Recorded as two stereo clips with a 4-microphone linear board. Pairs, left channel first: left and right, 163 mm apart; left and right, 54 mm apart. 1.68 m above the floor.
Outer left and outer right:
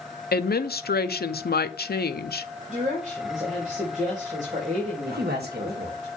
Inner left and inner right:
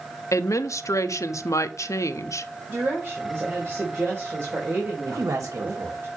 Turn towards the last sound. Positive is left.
turn(degrees=-75)  # may be behind; listen again after turning